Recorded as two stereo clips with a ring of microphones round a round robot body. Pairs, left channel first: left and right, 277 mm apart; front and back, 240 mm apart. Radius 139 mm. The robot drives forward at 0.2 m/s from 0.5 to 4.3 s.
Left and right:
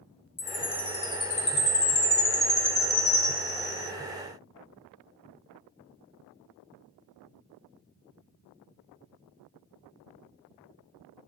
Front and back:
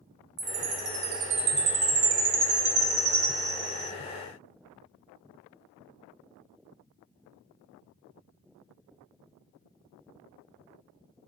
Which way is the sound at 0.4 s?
155° left.